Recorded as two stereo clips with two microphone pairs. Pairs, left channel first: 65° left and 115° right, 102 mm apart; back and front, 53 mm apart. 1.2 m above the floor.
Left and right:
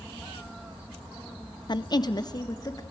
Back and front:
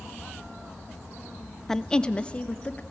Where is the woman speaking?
100° left, 0.5 m; by 2.8 s 115° left, 1.3 m.